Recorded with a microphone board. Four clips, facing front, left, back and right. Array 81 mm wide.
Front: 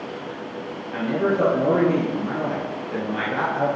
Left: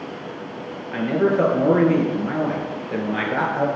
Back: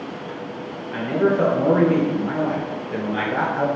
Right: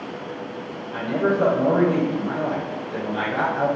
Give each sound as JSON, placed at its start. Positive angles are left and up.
{"t": 0.9, "sound": "a man speaking", "azimuth_deg": 105, "distance_m": 2.5}